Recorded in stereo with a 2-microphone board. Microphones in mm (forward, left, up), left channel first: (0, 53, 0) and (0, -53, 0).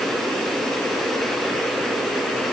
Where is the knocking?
No knocking in this recording.